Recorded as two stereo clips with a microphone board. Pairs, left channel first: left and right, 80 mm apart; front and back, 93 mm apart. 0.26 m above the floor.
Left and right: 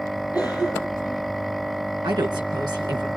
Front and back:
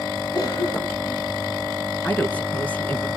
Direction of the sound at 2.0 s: 75° right.